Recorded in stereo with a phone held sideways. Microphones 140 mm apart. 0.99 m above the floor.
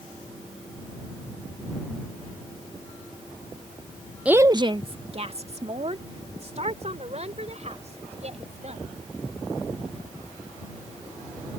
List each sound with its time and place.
4.2 s a woman speaking: 5° right (ahead or behind); by 8.8 s 50° right (ahead or behind)